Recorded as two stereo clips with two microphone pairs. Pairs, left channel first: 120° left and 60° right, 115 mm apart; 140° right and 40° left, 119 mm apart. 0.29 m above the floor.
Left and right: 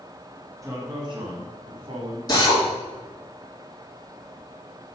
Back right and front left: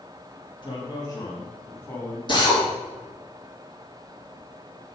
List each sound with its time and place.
0.6 s a man speaking: 110° right, 1.6 m; by 2.2 s 70° right, 2.5 m
2.3 s a drill: 175° left, 2.5 m